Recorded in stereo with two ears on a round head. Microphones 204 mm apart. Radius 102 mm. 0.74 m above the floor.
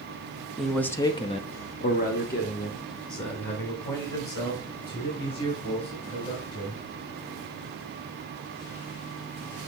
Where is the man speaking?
Centre (ahead or behind), 0.8 m; by 6.8 s 45° left (ahead or behind), 4.5 m.